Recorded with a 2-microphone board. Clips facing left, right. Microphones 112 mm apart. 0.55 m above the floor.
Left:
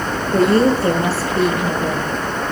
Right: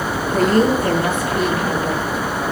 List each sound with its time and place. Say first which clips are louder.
0.3 s a woman speaking: left 2 dB; 35° left (ahead or behind), 9 m